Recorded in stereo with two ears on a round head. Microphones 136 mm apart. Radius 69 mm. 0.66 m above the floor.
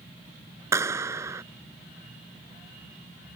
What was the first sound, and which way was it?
A clap, 15° right (ahead or behind).